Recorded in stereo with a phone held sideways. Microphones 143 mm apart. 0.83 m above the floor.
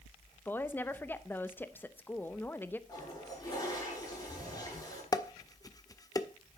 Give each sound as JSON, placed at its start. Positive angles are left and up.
{"t": 0.5, "sound": "a woman speaking", "side_deg": 15, "distance_m": 0.7}
{"t": 2.9, "sound": "a toilet flushing", "side_deg": 30, "distance_m": 8.0}
{"t": 5.1, "sound": "dishes clattering", "side_deg": 25, "distance_m": 0.7}